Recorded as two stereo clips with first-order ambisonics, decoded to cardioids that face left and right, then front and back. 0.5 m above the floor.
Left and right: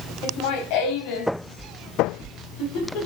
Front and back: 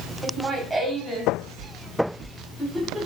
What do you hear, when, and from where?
0.2 s laughter: 105° left, 2.5 m; by 3.1 s 95° left, 4 m